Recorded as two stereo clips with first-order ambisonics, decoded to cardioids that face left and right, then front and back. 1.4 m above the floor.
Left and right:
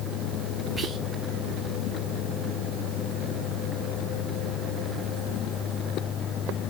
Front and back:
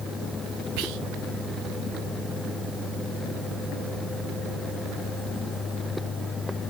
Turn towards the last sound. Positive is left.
turn(degrees=-170)